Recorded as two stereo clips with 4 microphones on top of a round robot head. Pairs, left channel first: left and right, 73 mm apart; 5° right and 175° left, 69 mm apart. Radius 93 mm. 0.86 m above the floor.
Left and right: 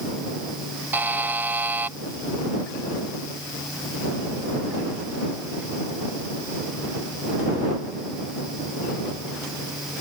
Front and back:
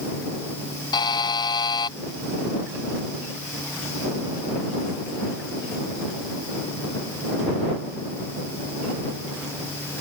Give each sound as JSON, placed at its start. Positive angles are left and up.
{"t": 0.9, "sound": "a buzzer", "azimuth_deg": -20}